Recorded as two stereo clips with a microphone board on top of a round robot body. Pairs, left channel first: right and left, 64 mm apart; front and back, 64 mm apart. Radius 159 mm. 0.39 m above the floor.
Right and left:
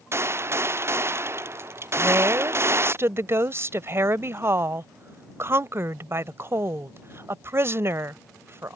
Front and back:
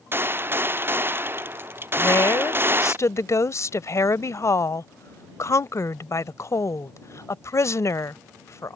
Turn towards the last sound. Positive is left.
turn(degrees=40)